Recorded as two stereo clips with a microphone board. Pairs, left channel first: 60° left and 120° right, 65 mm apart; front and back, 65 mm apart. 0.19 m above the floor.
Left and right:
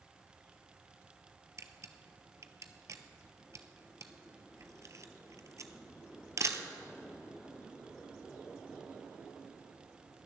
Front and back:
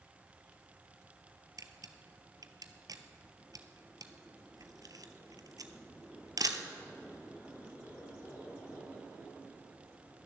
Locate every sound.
1.6 s a camera shutter: 160° right, 0.9 m